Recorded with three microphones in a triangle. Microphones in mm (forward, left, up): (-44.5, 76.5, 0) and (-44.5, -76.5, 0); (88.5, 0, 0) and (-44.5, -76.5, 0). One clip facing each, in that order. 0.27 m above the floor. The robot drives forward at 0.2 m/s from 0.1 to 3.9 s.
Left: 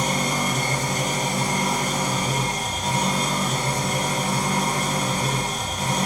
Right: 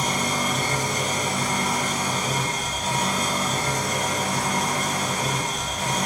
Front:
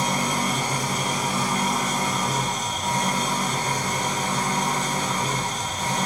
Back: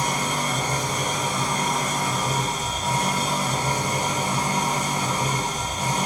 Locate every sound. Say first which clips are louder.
0.0 s an engine running: left 1 dB, front 1 dB; 95° left, 1.2 m; by 6.1 s 135° left, 1.5 m